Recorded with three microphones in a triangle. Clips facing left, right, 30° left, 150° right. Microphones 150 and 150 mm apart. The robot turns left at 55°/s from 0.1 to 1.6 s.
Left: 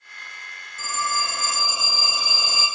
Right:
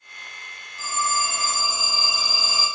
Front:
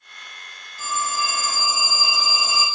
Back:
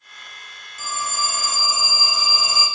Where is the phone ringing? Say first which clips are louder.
Right 1 dB, front 2 dB; 150° left, 1.6 m; by 2.6 s 105° left, 1.6 m.